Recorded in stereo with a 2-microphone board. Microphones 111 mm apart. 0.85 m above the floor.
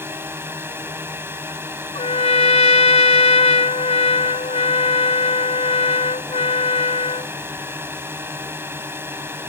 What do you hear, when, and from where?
0.0 s a drone: 20° right (ahead or behind)
1.9 s a trumpet: 70° left (ahead or behind)